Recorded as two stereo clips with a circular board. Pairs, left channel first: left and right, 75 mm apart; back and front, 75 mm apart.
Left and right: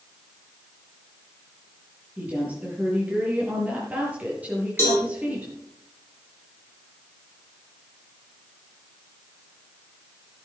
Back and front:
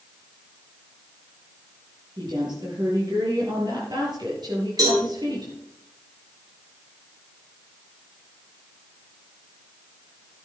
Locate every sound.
2.2 s a woman speaking: 20° right, 8 m
4.8 s a cowbell: 35° left, 5.5 m